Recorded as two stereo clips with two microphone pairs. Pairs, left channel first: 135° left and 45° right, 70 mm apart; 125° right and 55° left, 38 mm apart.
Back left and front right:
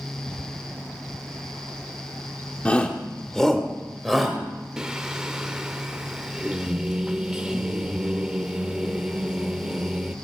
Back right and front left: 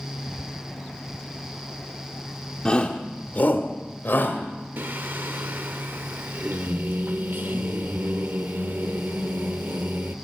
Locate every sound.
2.6 s a shout: 170° right, 1.0 m; by 4.4 s 135° right, 2 m
4.8 s singing: 35° left, 0.7 m